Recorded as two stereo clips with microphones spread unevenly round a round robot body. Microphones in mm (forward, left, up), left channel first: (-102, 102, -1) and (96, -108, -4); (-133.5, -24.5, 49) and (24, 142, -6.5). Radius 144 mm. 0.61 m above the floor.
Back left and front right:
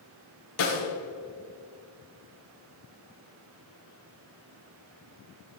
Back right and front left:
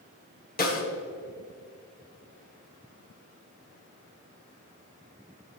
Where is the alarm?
No alarm in this recording.